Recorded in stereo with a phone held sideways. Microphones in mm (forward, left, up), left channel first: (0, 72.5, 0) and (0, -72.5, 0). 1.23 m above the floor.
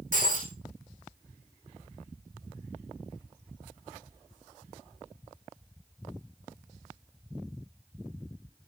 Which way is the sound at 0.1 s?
65° right (ahead or behind).